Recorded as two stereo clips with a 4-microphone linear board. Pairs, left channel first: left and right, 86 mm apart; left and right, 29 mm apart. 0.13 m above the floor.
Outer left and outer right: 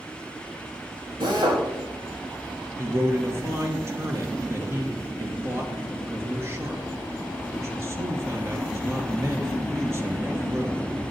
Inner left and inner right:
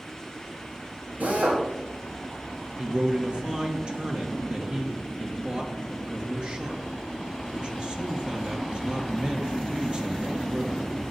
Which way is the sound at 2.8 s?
35° right (ahead or behind).